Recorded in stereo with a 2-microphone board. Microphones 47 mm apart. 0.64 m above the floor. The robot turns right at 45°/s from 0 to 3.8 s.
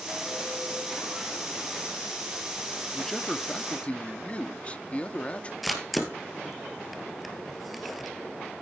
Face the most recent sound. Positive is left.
turn(degrees=-5)  # may be behind; listen again after turning